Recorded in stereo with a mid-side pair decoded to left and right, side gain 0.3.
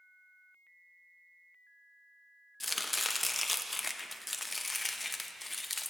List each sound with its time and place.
2.6 s chopping: 20° left, 0.7 m